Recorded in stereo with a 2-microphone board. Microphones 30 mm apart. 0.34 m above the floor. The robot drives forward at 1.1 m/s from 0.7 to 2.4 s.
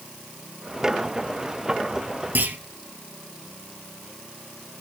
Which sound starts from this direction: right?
A clunk, at 2.4 s.